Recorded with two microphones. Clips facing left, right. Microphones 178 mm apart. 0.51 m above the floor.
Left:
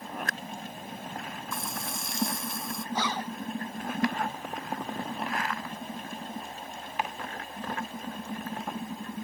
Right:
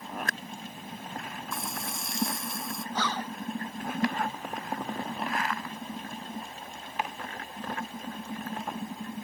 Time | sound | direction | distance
1.5 | frying | 5° right (ahead or behind) | ?
3.0 | a zipper | 10° left (ahead or behind) | ?